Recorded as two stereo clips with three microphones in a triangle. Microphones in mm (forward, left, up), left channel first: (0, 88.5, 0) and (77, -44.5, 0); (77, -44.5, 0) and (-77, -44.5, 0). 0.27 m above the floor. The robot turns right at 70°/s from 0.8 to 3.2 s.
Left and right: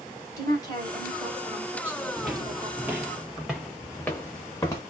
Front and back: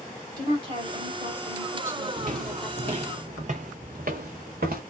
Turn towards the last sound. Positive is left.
turn(degrees=-170)